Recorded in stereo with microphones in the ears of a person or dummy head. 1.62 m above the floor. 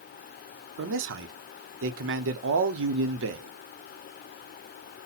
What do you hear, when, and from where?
0.8 s a man speaking: 70° right (ahead or behind), 0.7 m